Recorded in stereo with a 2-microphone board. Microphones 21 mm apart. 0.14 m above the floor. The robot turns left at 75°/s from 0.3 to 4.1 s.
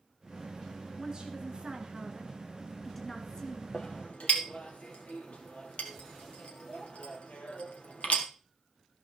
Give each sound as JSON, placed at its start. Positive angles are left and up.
{"t": 1.0, "sound": "a woman speaking", "azimuth_deg": -45, "distance_m": 2.0}
{"t": 3.7, "sound": "a clink", "side_deg": 55, "distance_m": 2.5}